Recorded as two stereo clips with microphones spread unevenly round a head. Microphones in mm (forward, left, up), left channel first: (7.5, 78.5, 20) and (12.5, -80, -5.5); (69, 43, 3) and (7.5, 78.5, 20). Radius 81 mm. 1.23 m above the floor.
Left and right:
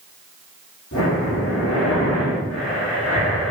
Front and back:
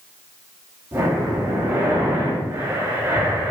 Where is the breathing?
95° left, 2.5 m.